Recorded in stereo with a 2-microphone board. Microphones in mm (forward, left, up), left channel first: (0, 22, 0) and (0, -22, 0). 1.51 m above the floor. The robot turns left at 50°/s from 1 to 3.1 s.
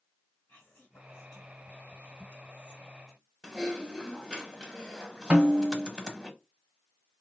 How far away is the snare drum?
About 1.7 m.